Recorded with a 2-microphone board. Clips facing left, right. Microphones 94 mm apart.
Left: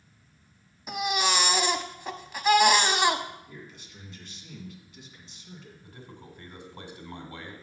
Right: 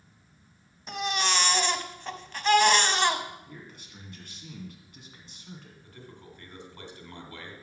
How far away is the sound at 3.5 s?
About 2.0 m.